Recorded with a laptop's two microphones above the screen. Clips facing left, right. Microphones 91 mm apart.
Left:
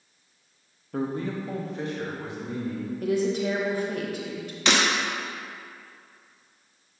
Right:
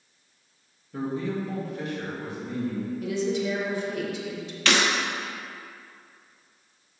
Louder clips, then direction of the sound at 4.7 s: Even; 20° left (ahead or behind).